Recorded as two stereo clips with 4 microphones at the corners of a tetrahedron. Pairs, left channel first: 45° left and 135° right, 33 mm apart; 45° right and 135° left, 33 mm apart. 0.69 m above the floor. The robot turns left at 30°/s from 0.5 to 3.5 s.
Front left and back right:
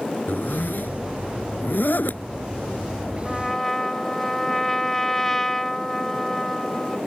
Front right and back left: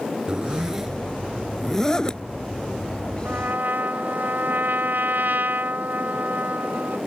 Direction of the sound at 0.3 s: 70° left.